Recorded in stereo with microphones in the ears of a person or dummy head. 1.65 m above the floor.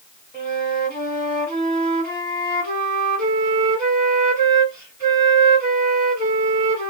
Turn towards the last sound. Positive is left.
turn(degrees=10)  # may be behind; listen again after turning